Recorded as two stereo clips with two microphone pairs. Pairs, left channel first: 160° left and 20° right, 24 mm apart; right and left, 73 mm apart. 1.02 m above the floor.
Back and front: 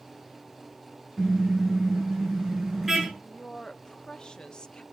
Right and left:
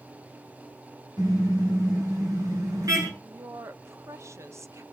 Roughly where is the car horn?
Left.